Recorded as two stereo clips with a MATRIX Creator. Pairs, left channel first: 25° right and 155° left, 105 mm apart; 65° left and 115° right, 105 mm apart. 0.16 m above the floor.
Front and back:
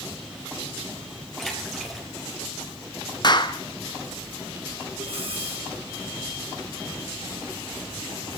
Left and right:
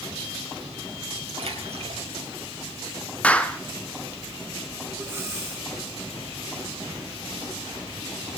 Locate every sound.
1.4 s a splash: 110° right, 4 m
3.2 s a clap: 5° right, 1.2 m
5.0 s breathing: 175° right, 3 m